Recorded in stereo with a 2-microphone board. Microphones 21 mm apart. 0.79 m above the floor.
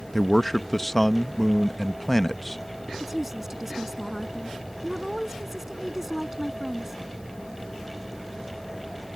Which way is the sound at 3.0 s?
15° right (ahead or behind).